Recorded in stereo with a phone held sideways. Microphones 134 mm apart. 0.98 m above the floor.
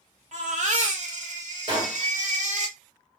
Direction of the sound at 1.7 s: 35° right (ahead or behind).